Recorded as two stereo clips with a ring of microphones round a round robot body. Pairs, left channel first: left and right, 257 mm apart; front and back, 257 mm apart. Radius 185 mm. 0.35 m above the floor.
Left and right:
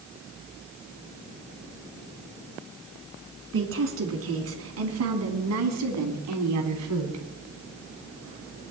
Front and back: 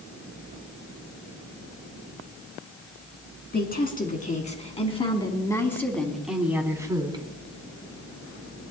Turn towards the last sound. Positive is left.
turn(degrees=-110)